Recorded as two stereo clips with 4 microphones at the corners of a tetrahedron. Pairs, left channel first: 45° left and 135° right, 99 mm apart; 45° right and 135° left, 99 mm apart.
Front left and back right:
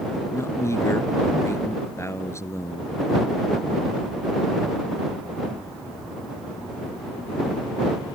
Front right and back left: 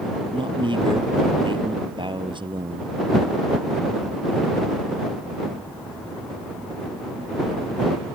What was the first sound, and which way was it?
A man speaking, 105° left.